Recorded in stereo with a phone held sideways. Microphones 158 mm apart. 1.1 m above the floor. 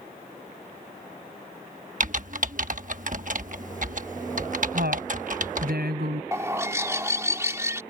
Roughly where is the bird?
Centre.